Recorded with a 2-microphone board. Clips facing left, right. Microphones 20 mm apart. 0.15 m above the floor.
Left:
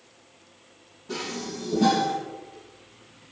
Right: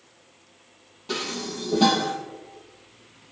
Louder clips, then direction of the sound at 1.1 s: Right 3 dB; 70° right (ahead or behind).